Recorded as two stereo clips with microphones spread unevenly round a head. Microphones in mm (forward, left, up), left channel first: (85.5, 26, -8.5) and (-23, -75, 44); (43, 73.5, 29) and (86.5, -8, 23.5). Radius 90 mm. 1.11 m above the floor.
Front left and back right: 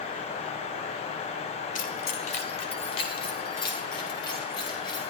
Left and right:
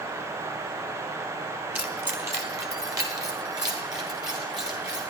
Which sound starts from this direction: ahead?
Keys jangling, at 1.8 s.